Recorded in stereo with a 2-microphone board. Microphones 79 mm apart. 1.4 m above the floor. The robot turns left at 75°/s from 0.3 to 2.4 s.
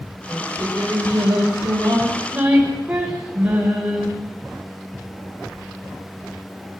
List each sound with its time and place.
0.3 s singing: 5° right, 7.5 m; by 4.1 s 165° right, 7.5 m